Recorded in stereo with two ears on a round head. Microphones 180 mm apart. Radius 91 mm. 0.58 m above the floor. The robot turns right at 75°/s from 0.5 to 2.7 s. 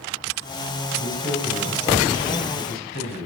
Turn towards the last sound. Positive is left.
turn(degrees=95)